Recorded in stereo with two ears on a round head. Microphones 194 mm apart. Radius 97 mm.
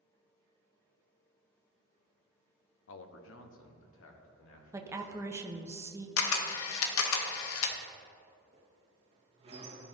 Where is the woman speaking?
10° right (ahead or behind), 0.6 m.